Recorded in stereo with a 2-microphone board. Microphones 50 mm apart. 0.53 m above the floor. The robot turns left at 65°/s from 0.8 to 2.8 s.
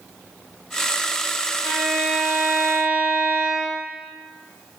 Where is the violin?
35° left, 3 m; by 3.9 s 40° right, 3 m.